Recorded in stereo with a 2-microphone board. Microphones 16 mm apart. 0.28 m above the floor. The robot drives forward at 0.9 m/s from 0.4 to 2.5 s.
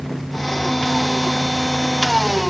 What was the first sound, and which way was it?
Only background noise.